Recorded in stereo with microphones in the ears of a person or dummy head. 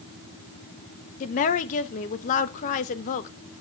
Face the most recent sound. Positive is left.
turn(degrees=45)  # may be behind; listen again after turning